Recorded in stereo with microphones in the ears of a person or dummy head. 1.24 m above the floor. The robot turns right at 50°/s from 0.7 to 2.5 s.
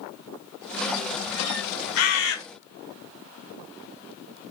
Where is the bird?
80° left, 1.0 m.